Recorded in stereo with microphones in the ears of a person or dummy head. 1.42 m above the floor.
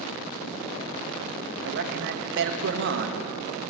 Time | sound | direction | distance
1.6 | a man speaking | 65° right (ahead or behind) | 2.0 m